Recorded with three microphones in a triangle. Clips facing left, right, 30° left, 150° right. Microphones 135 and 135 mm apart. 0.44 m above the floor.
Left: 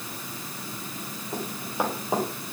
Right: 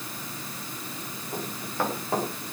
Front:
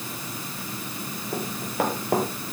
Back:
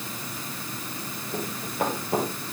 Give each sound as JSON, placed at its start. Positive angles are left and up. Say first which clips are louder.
{"t": 1.3, "sound": "running footsteps", "louder": "left 2 dB, front 3 dB", "azimuth_deg": 15, "distance_m": 8.5}